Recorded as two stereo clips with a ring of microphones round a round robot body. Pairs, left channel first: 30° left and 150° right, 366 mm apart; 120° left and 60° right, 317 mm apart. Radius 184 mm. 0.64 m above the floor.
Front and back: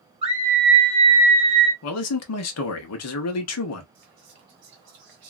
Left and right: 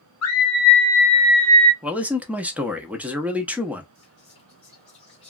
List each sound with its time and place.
0.2 s a scream: 140° left, 1.0 m; by 1.7 s 115° right, 1.1 m
1.8 s a man speaking: 25° left, 0.7 m
4.0 s whispering: 165° right, 1.2 m